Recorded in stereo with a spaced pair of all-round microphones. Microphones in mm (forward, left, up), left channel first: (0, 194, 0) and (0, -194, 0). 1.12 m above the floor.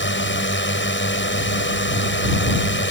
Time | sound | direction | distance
0.0 | a drone | 30° left (ahead or behind) | ?